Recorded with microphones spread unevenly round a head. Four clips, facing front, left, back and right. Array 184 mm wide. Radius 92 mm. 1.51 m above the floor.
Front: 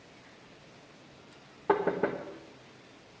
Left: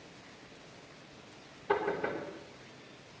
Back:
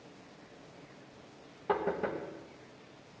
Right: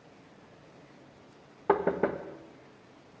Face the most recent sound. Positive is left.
turn(degrees=-55)